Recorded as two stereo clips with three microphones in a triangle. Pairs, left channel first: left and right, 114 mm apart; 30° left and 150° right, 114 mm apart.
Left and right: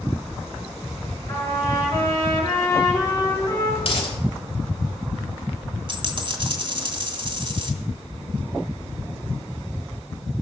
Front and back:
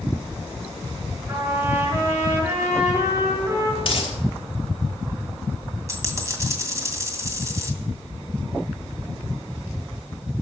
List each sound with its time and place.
1.3 s a trumpet: 145° left, 5.5 m
3.8 s a dropped coin: 65° left, 3.5 m
5.9 s a dropped coin: 95° right, 2 m